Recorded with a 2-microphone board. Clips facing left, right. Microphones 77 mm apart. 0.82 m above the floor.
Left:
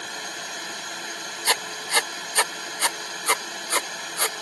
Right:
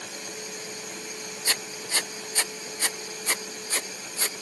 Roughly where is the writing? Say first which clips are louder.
Left 7 dB; left.